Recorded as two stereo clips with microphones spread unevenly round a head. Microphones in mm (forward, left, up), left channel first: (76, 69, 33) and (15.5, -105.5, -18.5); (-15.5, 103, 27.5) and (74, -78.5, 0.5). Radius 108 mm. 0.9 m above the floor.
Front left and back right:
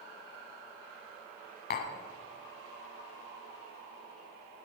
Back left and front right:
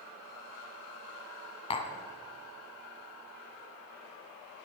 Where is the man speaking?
I don't hear a man speaking.